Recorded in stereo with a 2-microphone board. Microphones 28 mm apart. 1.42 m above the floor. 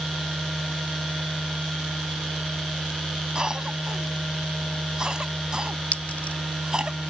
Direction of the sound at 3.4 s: 25° right (ahead or behind).